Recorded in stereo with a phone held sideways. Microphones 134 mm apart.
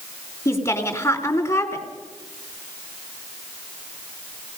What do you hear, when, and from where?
0.5 s a woman speaking: 25° left (ahead or behind), 3 m